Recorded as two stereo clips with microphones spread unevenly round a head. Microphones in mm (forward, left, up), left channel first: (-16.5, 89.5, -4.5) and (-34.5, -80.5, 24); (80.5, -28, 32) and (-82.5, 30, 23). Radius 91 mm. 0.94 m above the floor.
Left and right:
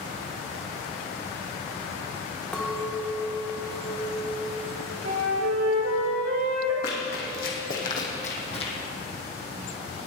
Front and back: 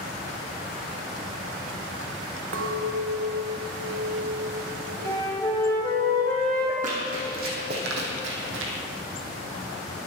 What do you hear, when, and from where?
2.5 s a clink: 170° left, 1.4 m
5.0 s a flute: 95° right, 2.5 m
6.8 s running footsteps: 115° left, 3.5 m; by 8.7 s 145° left, 2.5 m